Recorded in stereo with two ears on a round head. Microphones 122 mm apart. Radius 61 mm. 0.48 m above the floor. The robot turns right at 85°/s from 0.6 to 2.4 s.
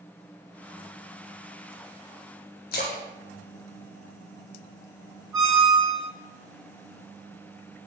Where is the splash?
70° left (ahead or behind), 0.6 m.